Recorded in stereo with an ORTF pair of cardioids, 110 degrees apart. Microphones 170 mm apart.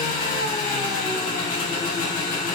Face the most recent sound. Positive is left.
turn(degrees=50)